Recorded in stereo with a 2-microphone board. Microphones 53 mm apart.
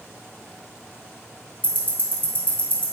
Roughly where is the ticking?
Right.